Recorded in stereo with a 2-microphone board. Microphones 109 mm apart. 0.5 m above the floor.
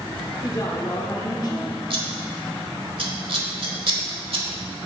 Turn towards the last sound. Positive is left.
turn(degrees=-60)  # may be behind; listen again after turning